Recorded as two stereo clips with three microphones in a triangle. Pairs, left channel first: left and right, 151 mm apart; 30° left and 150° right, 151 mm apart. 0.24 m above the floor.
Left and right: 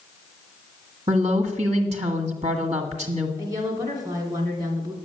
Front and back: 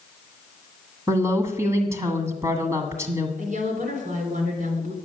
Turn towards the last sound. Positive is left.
turn(degrees=-155)